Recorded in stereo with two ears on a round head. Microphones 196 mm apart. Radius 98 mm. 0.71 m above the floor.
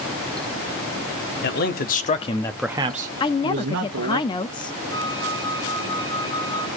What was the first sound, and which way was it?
A man speaking, 50° left (ahead or behind).